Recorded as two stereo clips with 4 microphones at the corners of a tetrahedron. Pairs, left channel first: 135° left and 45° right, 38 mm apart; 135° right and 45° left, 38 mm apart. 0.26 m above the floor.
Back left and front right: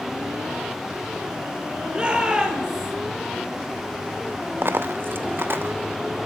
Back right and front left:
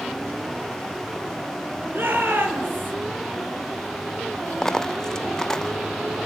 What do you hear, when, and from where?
1.9 s a shout: 25° left, 7 m; by 2.9 s 35° left, 6 m
4.6 s a dropped coin: 60° right, 0.8 m